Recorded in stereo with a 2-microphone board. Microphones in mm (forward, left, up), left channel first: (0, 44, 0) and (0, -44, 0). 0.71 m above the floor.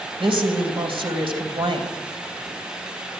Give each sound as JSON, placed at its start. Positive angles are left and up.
{"t": 0.2, "sound": "a woman speaking", "side_deg": -80, "distance_m": 3.5}